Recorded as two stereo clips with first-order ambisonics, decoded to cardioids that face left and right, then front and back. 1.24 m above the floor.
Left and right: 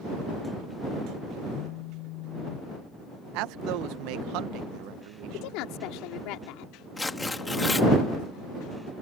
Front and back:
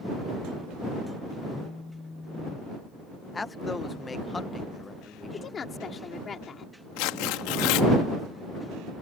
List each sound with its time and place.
1.5 s a phone buzzing: 80° left
3.3 s a man speaking: 75° right
5.3 s a woman speaking: 65° left
7.0 s tearing paper: 10° left